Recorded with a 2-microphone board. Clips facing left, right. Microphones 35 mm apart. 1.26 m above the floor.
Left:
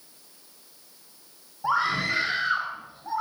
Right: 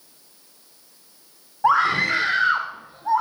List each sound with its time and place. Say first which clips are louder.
1.6 s a scream: right 7 dB; 85° right, 3 m; by 3.2 s 80° right, 4 m